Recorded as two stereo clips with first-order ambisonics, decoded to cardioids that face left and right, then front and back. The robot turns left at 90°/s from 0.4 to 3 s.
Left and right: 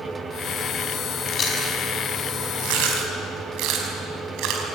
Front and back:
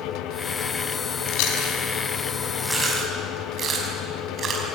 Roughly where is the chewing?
Ahead left.